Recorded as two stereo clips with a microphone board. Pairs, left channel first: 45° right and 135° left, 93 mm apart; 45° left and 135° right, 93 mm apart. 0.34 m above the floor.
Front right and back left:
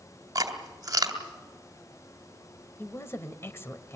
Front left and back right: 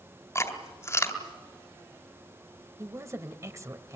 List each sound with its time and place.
0.3 s chewing: 95° left, 2.5 m
2.8 s a woman speaking: 95° right, 1.4 m